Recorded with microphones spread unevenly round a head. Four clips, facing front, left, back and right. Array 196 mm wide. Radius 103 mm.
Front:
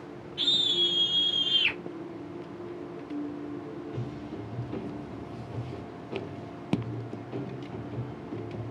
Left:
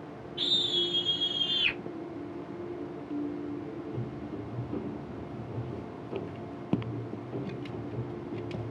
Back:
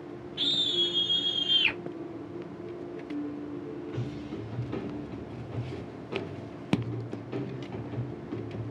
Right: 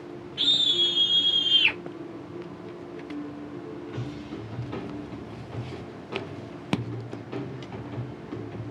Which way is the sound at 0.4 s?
165° right.